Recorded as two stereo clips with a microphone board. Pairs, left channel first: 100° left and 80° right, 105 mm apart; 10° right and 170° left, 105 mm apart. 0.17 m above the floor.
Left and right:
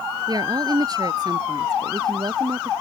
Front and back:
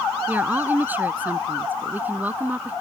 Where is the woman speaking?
120° right.